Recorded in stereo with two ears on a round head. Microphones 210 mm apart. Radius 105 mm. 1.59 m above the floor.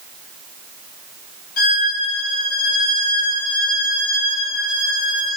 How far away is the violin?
About 2.5 m.